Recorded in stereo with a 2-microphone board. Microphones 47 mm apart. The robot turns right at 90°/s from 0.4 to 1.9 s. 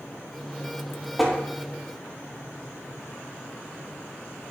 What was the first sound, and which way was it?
Tapping, 5° right (ahead or behind).